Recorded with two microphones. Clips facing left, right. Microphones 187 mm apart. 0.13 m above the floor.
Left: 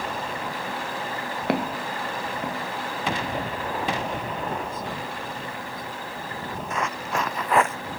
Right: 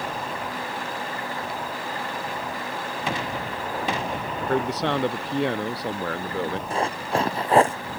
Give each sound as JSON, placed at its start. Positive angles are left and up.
{"t": 1.5, "sound": "footsteps", "side_deg": 70}
{"t": 4.4, "sound": "a man speaking", "side_deg": -75}
{"t": 6.7, "sound": "running footsteps", "side_deg": -30}